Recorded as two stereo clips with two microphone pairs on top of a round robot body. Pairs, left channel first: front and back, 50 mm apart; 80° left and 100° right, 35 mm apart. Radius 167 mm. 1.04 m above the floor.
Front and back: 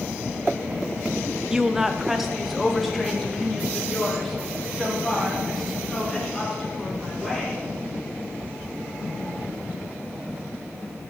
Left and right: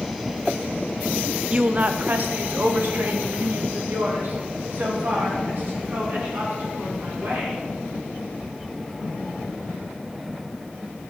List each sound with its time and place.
1.5 s a woman speaking: 115° right, 0.7 m; by 7.6 s 85° right, 5.5 m